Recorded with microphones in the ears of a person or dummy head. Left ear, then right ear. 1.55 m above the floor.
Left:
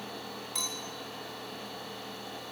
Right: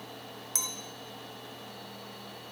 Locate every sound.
0.6 s a clink: 30° right (ahead or behind), 0.8 m